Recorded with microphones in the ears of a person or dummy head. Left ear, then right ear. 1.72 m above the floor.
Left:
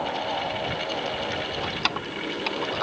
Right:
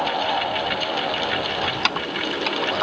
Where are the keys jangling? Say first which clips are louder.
Right 5 dB; 20° right (ahead or behind).